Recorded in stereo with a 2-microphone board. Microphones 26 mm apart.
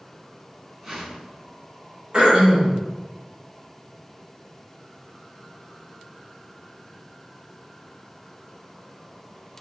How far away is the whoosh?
About 1.3 m.